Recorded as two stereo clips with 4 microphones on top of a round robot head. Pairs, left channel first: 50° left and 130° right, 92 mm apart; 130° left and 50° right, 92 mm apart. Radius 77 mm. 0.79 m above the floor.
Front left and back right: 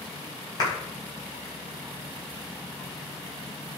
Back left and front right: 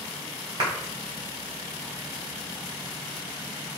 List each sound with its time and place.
0.6 s a clap: straight ahead, 4.5 m